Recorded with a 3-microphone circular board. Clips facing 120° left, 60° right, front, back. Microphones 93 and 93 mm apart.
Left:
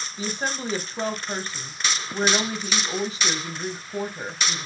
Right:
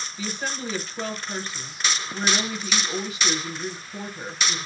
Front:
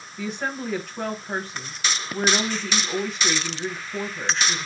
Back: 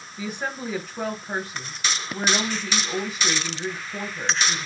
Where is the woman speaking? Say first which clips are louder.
Left 3 dB, front 1 dB; 95° left, 1.2 m.